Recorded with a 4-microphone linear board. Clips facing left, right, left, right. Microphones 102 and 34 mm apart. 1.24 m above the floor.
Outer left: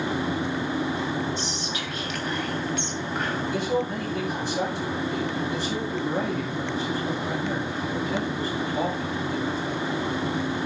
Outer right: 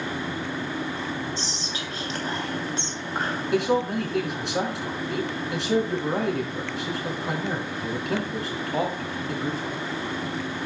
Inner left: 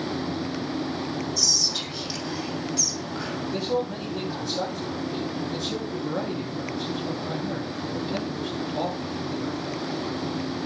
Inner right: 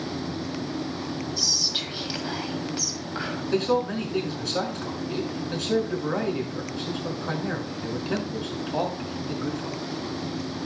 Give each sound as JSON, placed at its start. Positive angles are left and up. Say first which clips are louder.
{"t": 1.4, "sound": "whispering", "louder": "outer left 2 dB, even", "side_deg": -35, "distance_m": 3.0}
{"t": 3.5, "sound": "a man speaking", "louder": "outer right 6 dB, inner right 4 dB", "side_deg": -75, "distance_m": 6.0}